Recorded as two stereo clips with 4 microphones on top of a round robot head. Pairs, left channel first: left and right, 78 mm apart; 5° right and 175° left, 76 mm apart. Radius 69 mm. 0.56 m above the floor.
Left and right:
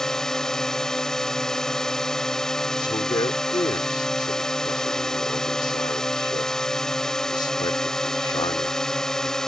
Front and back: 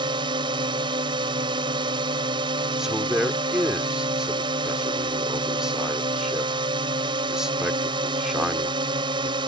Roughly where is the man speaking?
Left.